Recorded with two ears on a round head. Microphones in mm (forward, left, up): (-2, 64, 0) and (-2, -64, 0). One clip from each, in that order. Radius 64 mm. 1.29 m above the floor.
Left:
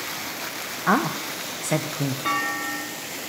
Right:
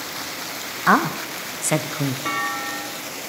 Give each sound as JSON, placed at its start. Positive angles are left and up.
{"t": 0.9, "sound": "a woman speaking", "side_deg": -25, "distance_m": 0.9}
{"t": 2.2, "sound": "a clunk", "side_deg": 10, "distance_m": 1.7}